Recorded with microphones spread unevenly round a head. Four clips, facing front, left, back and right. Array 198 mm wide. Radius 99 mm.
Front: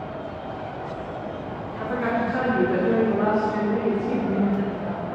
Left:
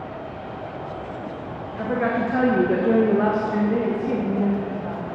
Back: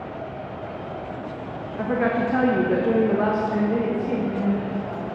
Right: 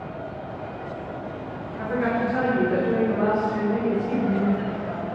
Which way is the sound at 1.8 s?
155° left.